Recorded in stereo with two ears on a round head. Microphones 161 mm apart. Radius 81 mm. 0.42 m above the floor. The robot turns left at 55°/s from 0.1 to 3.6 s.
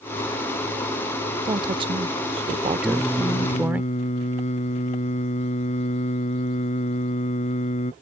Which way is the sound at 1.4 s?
45° right.